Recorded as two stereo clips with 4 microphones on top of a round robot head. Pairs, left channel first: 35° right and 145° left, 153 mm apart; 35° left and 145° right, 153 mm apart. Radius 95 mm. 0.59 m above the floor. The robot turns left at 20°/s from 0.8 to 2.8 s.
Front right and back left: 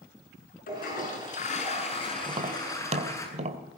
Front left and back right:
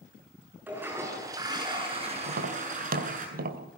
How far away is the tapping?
About 2.5 m.